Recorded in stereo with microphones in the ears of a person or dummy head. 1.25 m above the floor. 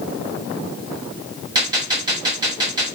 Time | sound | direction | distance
1.6 | a gunshot | 20° right (ahead or behind) | 1.4 m